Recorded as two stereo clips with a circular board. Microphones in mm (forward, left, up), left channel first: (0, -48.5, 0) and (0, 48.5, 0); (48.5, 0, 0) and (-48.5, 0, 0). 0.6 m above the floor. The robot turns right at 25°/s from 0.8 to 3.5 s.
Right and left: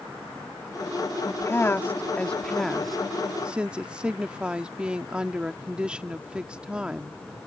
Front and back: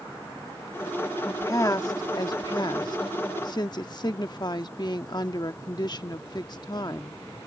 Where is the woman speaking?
45° right; by 7.2 s 15° left.